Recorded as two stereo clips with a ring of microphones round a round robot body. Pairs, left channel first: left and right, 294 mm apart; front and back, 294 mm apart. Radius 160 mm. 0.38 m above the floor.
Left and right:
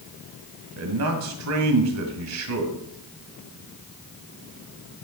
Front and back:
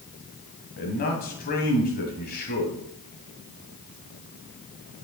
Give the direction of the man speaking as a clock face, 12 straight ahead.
2 o'clock.